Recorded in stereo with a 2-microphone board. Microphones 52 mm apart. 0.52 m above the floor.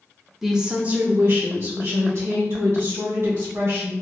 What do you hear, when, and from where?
0.4 s a woman speaking: centre (ahead or behind), 0.6 m; by 3.9 s 70° right (ahead or behind), 2.5 m